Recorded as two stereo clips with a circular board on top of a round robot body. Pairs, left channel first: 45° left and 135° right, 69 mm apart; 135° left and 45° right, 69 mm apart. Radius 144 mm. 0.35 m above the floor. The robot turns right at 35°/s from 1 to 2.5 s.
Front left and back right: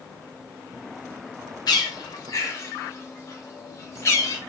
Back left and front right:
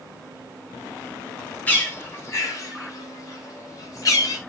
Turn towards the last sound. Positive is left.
turn(degrees=95)